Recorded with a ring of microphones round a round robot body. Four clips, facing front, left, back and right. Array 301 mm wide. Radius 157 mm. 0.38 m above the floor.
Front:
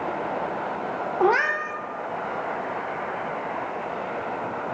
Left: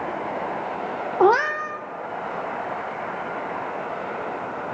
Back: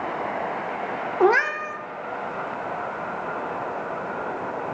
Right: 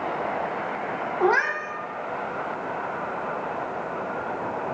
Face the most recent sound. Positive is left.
turn(degrees=115)